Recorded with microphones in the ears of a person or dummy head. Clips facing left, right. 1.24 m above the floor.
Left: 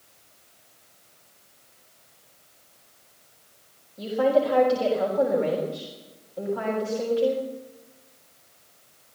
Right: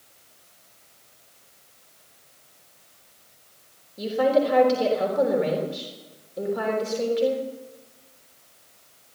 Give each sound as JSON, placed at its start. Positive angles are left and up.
{"t": 4.0, "sound": "a woman speaking", "side_deg": -30, "distance_m": 3.5}